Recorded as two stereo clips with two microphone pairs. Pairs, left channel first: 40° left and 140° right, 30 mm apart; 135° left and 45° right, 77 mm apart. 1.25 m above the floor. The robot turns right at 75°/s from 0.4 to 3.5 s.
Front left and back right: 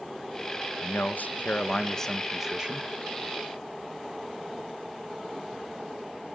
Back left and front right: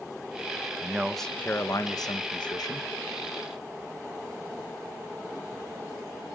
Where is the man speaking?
25° left, 1.4 m; by 2.9 s straight behind, 1.4 m.